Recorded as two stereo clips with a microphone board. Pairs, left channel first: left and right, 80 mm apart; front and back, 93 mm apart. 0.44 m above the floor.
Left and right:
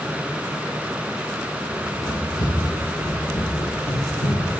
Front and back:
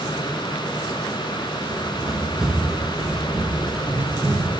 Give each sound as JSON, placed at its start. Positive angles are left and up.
{"t": 1.7, "sound": "running footsteps", "azimuth_deg": 105, "distance_m": 4.5}